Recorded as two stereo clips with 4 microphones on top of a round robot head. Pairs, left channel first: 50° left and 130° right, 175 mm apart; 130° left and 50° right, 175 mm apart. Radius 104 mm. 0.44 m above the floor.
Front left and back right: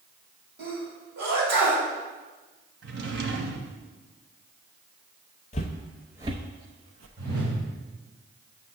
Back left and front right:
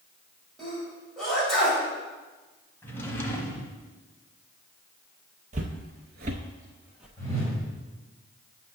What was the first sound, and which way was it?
A sneeze, 140° right.